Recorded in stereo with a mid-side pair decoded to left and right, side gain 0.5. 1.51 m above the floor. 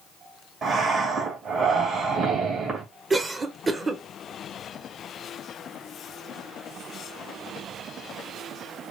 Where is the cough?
25° right, 1.2 m.